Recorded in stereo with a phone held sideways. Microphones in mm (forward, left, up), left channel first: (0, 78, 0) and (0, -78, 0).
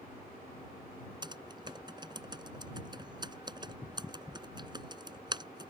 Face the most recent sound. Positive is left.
turn(degrees=-30)  # may be behind; listen again after turning